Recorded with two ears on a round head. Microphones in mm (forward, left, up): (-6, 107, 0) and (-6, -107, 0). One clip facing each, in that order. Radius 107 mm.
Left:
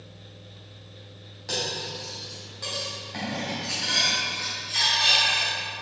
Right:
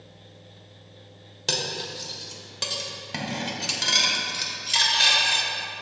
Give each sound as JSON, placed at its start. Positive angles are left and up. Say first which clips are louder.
{"t": 1.5, "sound": "cutlery clinking", "louder": "right 1 dB", "side_deg": -85, "distance_m": 1.8}